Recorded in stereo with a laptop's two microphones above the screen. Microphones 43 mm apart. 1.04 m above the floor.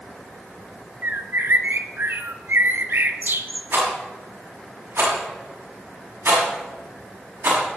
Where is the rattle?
60° right (ahead or behind), 6.5 m.